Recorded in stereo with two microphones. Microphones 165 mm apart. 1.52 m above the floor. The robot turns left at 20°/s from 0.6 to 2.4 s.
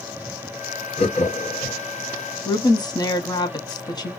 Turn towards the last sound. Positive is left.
turn(degrees=25)  # may be behind; listen again after turning